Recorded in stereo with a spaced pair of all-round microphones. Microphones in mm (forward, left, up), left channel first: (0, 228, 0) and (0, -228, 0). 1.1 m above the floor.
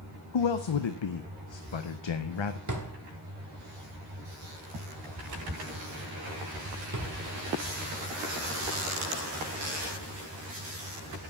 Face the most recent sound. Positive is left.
turn(degrees=-40)  # may be behind; listen again after turning